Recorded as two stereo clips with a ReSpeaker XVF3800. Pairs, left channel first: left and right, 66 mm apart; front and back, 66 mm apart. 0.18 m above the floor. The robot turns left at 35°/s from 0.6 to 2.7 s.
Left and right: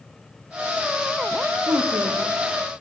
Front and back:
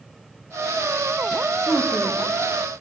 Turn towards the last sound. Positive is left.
turn(degrees=-100)